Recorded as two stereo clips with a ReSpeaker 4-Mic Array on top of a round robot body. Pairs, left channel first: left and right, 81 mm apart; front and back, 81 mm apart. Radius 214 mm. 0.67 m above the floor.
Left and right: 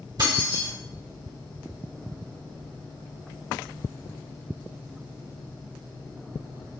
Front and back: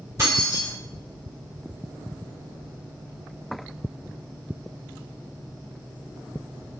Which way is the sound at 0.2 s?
125° right.